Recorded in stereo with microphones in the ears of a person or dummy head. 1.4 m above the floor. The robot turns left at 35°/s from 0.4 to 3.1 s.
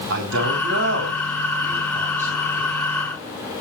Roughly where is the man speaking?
Right.